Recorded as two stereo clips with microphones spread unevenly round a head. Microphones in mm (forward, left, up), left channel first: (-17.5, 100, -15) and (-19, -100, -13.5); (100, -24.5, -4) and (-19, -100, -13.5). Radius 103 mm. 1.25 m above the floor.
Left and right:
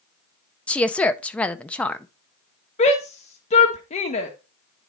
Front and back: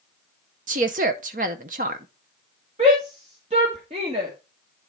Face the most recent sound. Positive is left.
turn(degrees=150)